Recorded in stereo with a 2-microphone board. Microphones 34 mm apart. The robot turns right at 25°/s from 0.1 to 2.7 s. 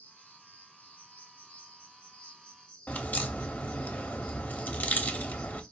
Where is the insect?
95° left, 3 m; by 5.7 s 160° left, 3 m.